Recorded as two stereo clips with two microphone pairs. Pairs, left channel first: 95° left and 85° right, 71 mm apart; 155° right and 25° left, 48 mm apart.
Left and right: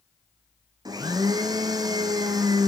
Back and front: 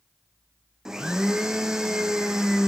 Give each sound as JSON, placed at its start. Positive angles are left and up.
{"t": 0.8, "sound": "a blender", "azimuth_deg": -55, "distance_m": 1.7}